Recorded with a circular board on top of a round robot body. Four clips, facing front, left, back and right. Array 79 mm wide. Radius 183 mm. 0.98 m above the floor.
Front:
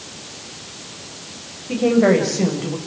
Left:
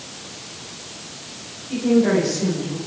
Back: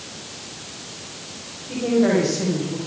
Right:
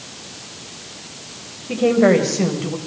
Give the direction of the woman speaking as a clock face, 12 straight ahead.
2 o'clock.